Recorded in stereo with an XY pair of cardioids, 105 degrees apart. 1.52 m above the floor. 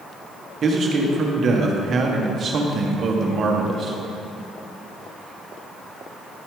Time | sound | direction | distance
0.6 | a man speaking | 50° right | 1.5 m